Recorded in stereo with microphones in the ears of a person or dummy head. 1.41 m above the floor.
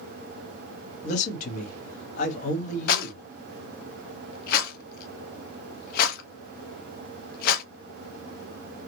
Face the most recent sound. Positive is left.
turn(degrees=60)  # may be behind; listen again after turning